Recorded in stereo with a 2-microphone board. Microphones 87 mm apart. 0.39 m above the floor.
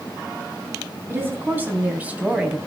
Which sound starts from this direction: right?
A woman speaking, at 1.1 s.